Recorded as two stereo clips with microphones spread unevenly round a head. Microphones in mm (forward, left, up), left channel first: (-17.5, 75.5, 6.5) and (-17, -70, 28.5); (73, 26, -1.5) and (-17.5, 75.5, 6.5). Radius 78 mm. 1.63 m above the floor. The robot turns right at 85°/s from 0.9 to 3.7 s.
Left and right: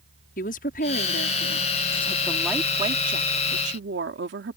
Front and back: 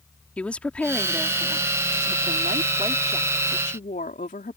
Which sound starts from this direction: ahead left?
A woman speaking, at 0.4 s.